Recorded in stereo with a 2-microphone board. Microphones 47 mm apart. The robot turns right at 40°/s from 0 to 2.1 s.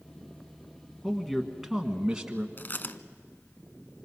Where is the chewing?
45° left (ahead or behind), 0.7 m.